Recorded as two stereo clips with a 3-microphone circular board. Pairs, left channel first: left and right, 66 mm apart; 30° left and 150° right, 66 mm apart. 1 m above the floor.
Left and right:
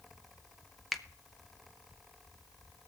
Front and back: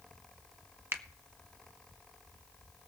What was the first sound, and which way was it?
A finger snap, straight behind.